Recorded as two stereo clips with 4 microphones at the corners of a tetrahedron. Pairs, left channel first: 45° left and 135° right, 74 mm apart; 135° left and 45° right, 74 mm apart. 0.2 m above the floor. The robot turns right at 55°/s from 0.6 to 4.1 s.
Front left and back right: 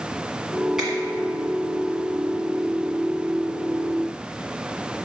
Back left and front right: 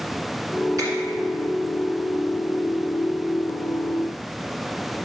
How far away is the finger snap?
About 1.7 m.